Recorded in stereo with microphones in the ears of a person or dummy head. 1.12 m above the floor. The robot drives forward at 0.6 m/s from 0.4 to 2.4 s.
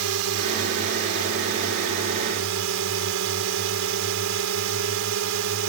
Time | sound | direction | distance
0.0 | a drone | 80° right | ?